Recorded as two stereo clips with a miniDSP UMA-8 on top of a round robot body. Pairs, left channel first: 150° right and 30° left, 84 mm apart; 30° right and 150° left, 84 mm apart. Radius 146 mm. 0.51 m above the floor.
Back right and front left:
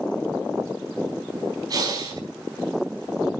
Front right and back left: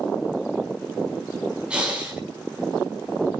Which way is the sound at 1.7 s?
70° left.